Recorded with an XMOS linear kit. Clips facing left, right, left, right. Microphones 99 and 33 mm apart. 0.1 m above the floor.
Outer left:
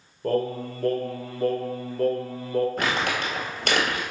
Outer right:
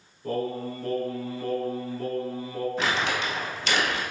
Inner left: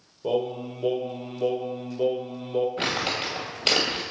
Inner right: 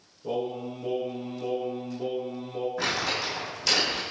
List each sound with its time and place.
0.2 s singing: 60° left (ahead or behind), 0.9 m
2.8 s crumpling: 50° left (ahead or behind), 1.4 m